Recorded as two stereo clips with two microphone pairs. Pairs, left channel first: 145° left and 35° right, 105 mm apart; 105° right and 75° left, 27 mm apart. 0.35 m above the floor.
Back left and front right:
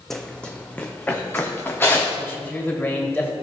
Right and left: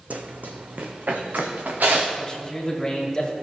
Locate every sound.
0.1 s running footsteps: 60° left, 0.8 m; by 2.1 s 80° left, 1.8 m
2.2 s a man speaking: 155° right, 1.8 m